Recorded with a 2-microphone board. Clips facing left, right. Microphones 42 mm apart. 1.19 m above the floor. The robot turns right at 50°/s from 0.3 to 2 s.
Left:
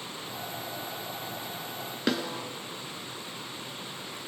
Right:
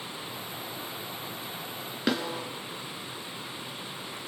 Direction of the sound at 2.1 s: 5° right (ahead or behind).